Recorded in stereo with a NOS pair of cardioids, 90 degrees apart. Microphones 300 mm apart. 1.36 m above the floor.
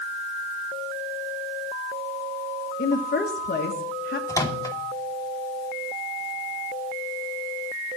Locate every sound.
2.8 s a woman speaking: 35° left, 1.7 m
4.3 s a microwave: 10° left, 2.0 m